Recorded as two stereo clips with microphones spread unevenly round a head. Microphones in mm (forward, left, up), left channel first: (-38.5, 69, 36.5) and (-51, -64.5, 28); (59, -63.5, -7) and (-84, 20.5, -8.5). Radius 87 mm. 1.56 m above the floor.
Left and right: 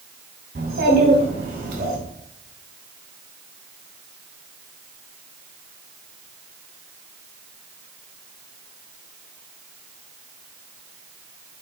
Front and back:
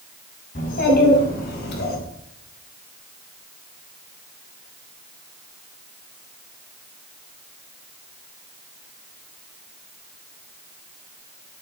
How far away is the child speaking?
About 6 m.